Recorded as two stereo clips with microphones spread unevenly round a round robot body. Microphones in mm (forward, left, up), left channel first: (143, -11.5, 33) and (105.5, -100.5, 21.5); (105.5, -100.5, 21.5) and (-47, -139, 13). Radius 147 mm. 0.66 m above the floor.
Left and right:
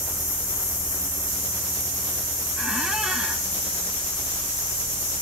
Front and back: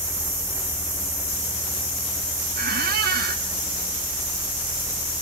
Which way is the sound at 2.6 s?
155° left.